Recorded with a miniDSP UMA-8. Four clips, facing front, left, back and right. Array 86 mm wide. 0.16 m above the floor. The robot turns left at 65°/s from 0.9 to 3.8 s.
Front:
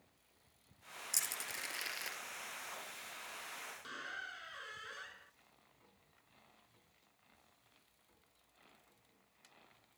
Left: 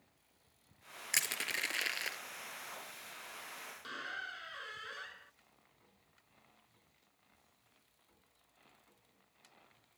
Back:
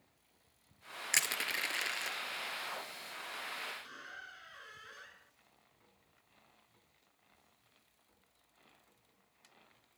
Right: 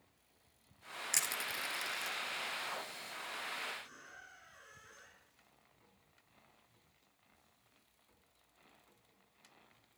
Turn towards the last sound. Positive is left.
turn(degrees=75)